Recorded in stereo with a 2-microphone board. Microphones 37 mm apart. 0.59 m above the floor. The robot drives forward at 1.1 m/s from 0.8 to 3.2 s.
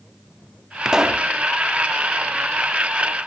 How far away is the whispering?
No whispering in this recording.